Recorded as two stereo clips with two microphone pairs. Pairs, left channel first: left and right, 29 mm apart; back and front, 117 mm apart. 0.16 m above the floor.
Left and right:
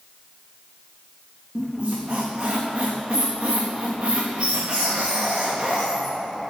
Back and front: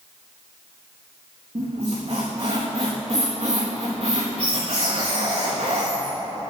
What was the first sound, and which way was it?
A squeak, 30° right.